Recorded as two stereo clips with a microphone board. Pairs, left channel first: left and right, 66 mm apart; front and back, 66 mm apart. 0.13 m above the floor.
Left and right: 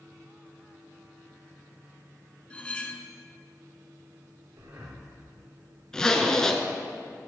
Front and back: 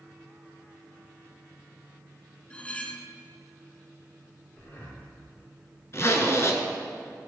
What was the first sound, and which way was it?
Cutlery clinking, 45° left.